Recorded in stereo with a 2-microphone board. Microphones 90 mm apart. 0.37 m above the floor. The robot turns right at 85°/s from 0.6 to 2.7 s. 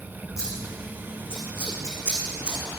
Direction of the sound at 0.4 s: 35° left (ahead or behind).